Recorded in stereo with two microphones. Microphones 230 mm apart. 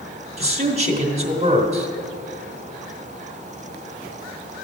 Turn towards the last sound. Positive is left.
turn(degrees=-25)  # may be behind; listen again after turning